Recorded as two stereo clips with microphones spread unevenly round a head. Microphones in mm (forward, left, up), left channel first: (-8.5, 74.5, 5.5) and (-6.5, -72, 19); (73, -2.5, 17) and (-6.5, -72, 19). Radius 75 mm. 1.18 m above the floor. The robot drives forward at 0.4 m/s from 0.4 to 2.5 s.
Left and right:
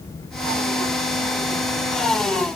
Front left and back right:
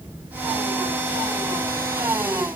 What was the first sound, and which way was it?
Only background noise.